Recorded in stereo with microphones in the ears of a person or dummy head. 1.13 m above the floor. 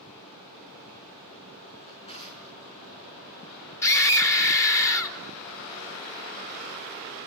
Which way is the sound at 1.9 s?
35° left (ahead or behind).